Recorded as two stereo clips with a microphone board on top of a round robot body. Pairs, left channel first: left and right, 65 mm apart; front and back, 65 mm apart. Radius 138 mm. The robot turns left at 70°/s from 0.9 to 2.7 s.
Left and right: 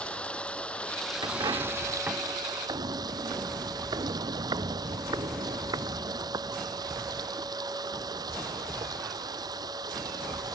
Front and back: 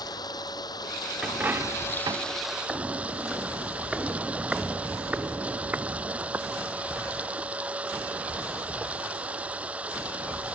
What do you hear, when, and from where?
0.0 s running water: 15° left; by 10.6 s 110° right
1.2 s a dropped coin: 100° right; by 2.4 s straight behind
2.7 s footsteps: 90° right; by 7.1 s 120° right